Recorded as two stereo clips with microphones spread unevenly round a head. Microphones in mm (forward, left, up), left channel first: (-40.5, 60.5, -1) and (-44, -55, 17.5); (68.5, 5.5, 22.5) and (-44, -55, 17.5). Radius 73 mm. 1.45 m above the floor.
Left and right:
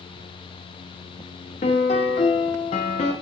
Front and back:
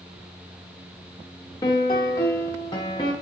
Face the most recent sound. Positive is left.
turn(degrees=70)